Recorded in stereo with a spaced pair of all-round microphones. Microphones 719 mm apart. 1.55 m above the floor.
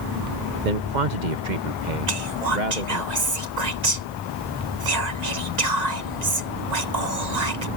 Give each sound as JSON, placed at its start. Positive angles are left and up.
{"t": 0.7, "sound": "a man speaking", "side_deg": -85}
{"t": 2.1, "sound": "whispering", "side_deg": -65}